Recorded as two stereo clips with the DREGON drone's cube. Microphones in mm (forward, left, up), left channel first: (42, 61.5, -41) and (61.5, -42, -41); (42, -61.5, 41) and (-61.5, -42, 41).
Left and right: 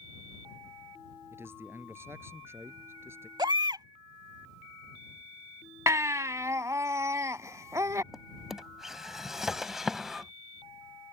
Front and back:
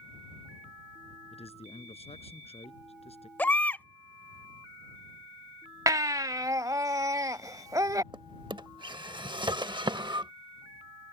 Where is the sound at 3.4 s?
80° right.